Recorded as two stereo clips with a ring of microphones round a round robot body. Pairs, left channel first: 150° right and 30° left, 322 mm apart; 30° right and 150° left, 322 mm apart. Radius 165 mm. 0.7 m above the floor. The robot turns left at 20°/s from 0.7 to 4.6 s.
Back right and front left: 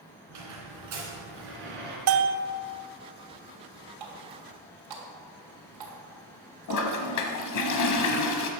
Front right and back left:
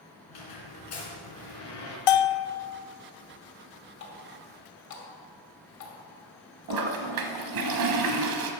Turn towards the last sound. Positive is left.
turn(degrees=175)